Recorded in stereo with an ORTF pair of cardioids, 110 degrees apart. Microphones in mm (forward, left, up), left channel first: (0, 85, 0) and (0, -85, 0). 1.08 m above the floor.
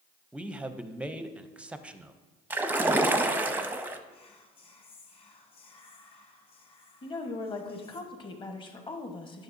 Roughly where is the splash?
Ahead.